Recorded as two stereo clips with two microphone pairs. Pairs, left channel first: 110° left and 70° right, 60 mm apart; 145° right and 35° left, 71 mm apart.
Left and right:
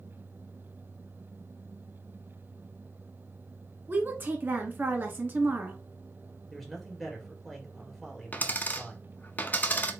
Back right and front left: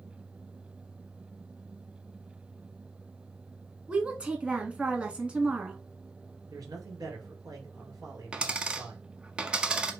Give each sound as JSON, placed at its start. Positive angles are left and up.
{"t": 3.9, "sound": "a woman speaking", "azimuth_deg": -30, "distance_m": 1.3}
{"t": 6.5, "sound": "a man speaking", "azimuth_deg": 25, "distance_m": 2.0}
{"t": 8.3, "sound": "a dropped coin", "azimuth_deg": 95, "distance_m": 0.7}